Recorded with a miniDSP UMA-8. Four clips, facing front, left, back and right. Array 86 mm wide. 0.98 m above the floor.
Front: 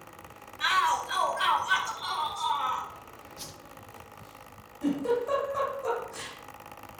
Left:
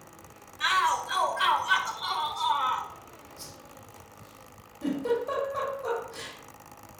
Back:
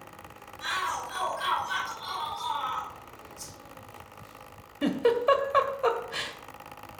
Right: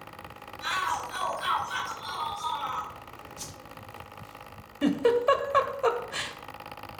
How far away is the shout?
About 5 m.